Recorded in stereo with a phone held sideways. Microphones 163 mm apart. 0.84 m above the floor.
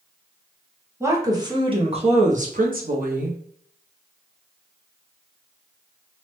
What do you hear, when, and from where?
1.0 s a woman speaking: 15° right (ahead or behind), 1.1 m; by 3.4 s 60° right (ahead or behind), 1.0 m